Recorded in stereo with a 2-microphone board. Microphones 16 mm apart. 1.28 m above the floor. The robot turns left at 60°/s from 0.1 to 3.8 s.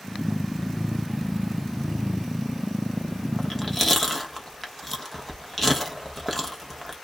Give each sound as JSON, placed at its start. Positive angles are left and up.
{"t": 3.4, "sound": "chewing", "side_deg": 40, "distance_m": 1.2}